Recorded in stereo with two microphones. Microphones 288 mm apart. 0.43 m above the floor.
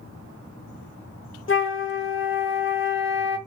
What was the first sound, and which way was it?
A flute, 45° left (ahead or behind).